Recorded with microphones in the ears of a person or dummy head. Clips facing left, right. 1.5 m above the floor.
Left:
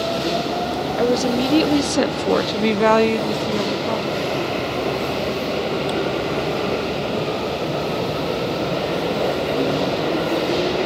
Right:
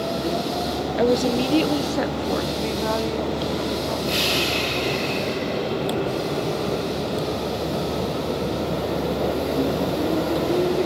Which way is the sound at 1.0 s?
5° right (ahead or behind).